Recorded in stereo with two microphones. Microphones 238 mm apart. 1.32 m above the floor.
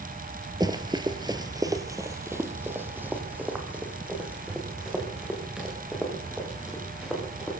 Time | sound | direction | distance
0.6 | running footsteps | 15° right (ahead or behind) | 1.4 m